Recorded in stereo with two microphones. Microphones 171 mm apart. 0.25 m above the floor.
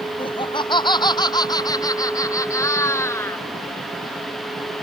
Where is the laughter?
30° left (ahead or behind); by 3.5 s 15° left (ahead or behind).